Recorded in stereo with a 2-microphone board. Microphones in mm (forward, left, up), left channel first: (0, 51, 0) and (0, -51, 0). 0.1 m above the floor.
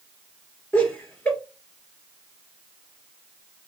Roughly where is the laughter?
Centre.